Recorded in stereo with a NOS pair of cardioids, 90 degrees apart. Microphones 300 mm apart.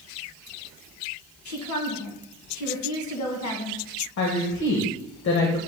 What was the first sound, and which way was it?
A woman speaking, 65° left.